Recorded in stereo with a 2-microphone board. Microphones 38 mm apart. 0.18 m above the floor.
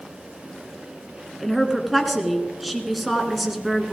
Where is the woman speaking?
Centre (ahead or behind), 1.7 m.